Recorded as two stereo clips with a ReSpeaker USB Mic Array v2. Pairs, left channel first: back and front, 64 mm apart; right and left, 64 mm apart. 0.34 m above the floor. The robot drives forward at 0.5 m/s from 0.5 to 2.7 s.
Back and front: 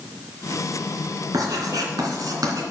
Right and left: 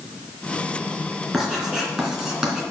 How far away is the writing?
About 3 m.